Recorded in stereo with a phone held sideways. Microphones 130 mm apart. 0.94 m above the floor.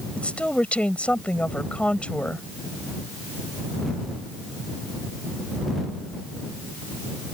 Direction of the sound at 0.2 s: 10° left (ahead or behind).